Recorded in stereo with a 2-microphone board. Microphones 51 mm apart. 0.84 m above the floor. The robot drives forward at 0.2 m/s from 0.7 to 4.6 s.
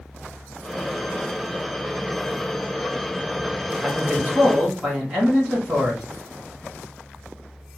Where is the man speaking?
20° right (ahead or behind), 1.8 m.